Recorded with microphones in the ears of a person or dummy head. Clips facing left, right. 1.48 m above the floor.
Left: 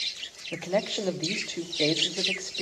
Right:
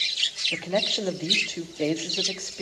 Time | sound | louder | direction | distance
0.5 | a man speaking | right 1 dB | 5° right (ahead or behind) | 0.8 m